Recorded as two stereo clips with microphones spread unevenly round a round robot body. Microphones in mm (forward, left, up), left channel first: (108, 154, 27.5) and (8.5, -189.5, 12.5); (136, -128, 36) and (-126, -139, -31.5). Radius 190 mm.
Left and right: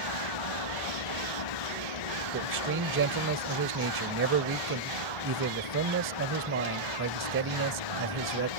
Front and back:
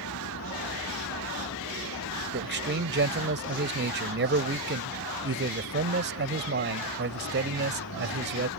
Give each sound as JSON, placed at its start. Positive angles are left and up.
{"t": 0.0, "sound": "a vehicle", "azimuth_deg": 60}
{"t": 2.3, "sound": "a man speaking", "azimuth_deg": -155}